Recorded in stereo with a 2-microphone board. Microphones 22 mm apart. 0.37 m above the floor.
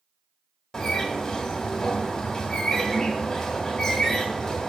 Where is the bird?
20° left (ahead or behind), 1.8 m.